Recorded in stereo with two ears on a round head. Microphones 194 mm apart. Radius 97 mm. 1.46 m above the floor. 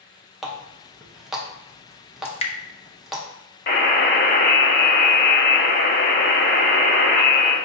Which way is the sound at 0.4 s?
Centre (ahead or behind).